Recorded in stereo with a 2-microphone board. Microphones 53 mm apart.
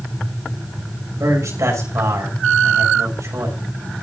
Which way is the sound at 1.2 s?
80° right.